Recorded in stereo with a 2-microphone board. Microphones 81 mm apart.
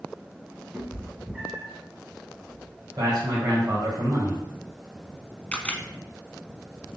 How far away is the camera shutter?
About 0.5 m.